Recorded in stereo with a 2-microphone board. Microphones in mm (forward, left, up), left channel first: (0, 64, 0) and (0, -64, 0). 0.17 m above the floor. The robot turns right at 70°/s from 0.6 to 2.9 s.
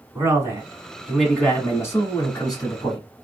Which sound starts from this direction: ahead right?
A man speaking, at 0.1 s.